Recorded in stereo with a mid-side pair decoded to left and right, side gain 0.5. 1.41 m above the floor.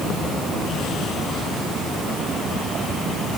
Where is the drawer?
I don't hear a drawer.